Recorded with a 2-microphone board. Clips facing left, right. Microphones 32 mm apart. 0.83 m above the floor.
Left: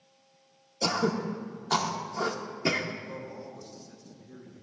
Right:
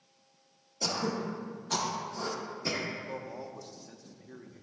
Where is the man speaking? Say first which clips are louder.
Even; 65° right (ahead or behind), 1.1 m.